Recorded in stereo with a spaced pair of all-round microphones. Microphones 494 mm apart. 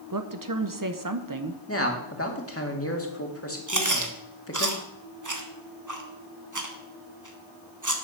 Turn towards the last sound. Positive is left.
turn(degrees=-35)  # may be behind; listen again after turning